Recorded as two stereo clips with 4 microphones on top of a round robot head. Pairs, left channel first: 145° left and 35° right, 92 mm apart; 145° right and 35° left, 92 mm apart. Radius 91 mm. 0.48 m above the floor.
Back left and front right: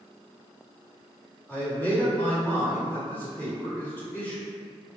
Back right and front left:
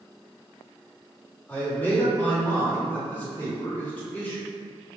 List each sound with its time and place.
1.5 s a man speaking: 175° left, 1.3 m